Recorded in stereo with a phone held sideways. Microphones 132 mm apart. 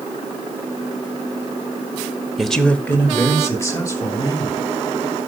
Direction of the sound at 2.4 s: Centre (ahead or behind).